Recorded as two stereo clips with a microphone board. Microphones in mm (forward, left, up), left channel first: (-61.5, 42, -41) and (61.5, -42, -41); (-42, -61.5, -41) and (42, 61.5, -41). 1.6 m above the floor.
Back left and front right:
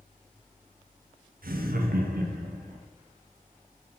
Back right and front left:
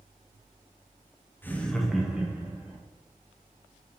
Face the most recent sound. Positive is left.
turn(degrees=-20)